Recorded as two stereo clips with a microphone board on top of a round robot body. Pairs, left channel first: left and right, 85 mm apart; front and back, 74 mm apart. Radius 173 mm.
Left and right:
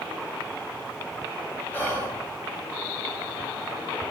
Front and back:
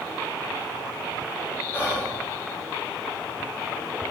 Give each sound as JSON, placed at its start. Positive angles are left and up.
{"t": 1.7, "sound": "whispering", "azimuth_deg": 40, "distance_m": 0.9}